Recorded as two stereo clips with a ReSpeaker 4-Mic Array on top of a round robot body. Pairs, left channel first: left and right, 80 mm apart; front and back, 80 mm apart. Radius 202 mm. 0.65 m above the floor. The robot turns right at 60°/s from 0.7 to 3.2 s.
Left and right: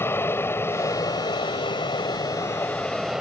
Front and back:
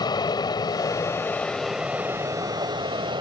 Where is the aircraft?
30° left; by 3.2 s 175° right.